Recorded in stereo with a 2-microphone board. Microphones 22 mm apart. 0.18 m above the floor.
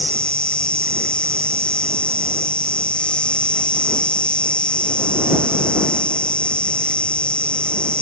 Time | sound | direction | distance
0.0 | an insect | 50° left (ahead or behind) | ?